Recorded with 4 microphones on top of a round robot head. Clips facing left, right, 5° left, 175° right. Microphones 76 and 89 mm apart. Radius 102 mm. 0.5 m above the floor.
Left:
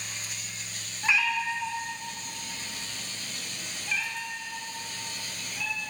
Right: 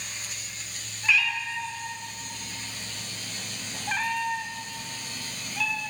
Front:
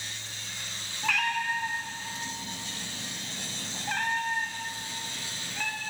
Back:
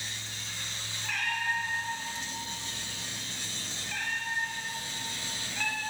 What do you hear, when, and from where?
1.0 s a cat meowing: 20° left, 3.5 m; by 5.9 s 85° right, 3.5 m